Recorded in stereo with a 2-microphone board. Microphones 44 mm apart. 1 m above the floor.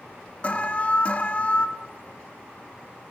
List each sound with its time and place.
0.4 s an alarm: 30° left (ahead or behind), 1.8 m